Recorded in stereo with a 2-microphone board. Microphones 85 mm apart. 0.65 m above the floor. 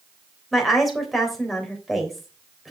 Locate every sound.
0.5 s a woman speaking: centre (ahead or behind), 3.5 m